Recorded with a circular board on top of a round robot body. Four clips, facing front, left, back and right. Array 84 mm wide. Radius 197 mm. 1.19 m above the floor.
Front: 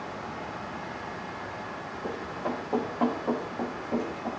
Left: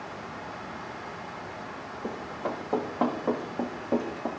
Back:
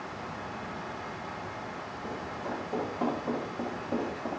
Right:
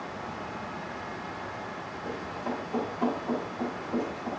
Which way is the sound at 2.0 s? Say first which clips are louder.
Left 1 dB, front 4 dB; 60° left.